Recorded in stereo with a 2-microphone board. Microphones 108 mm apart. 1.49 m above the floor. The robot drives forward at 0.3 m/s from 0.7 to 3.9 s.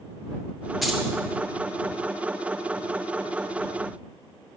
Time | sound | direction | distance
0.8 | keys jangling | centre (ahead or behind) | 2.5 m